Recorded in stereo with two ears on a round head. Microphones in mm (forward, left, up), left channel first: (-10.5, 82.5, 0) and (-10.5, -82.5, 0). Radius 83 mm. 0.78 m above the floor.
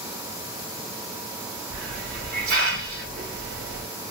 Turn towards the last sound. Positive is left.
turn(degrees=-50)  # may be behind; listen again after turning